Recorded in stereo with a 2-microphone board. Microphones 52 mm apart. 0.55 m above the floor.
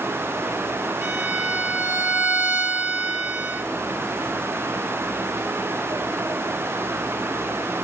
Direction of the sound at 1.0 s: 60° right (ahead or behind).